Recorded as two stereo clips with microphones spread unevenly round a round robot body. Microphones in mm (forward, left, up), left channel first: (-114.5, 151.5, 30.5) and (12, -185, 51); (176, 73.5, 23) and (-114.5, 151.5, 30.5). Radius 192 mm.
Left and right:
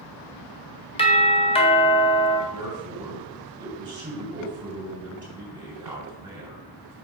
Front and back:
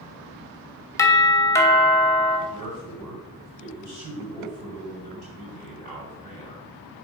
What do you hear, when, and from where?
1.0 s a doorbell: 55° left, 1.4 m
2.5 s a man speaking: 155° right, 4 m